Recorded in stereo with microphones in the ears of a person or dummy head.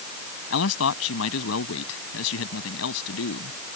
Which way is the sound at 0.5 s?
80° left.